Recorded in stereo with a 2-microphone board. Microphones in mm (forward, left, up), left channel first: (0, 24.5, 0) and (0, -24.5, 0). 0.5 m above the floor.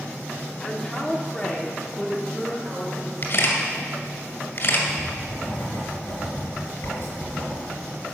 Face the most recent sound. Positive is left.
turn(degrees=75)  # may be behind; listen again after turning